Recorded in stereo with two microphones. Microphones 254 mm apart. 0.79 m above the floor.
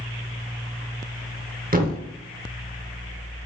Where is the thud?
35° right (ahead or behind), 0.6 m.